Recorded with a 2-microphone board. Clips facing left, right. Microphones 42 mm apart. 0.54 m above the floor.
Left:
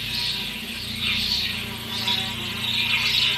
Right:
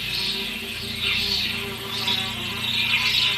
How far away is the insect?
About 1.8 m.